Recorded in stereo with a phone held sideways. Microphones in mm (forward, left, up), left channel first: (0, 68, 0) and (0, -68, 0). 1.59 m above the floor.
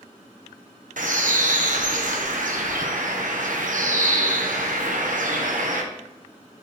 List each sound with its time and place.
1.0 s a bird: 70° right (ahead or behind), 0.9 m